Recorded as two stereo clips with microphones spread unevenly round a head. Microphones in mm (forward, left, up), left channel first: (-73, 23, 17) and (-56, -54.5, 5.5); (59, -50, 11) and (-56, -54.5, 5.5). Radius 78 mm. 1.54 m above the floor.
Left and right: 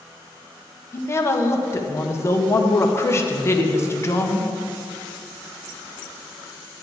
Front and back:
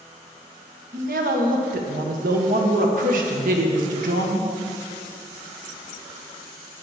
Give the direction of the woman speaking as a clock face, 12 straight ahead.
7 o'clock.